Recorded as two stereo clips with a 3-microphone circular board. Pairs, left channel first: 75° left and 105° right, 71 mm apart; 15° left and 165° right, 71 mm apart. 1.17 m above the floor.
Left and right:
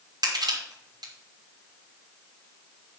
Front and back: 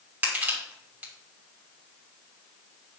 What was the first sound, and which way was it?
Crushing, 100° right.